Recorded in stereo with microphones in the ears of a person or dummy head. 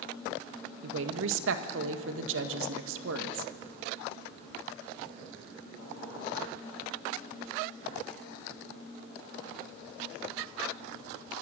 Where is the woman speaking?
75° right (ahead or behind), 1.5 m.